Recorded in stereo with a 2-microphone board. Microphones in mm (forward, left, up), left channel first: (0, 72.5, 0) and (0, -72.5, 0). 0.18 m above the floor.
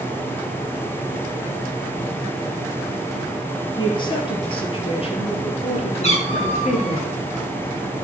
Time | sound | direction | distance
3.8 | a woman speaking | 35° left (ahead or behind) | 4 m
6.0 | a cat meowing | 45° left (ahead or behind) | 6.5 m